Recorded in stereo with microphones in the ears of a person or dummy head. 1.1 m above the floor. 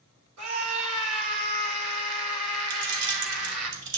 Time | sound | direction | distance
0.4 | a scream | 75° right (ahead or behind) | 3.5 m
2.7 | keys jangling | 60° right (ahead or behind) | 2.5 m